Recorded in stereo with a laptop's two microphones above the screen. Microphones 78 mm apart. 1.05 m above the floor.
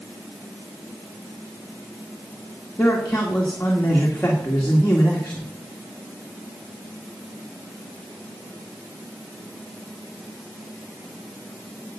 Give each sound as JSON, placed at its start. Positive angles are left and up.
{"t": 2.8, "sound": "a man speaking", "side_deg": 20, "distance_m": 1.8}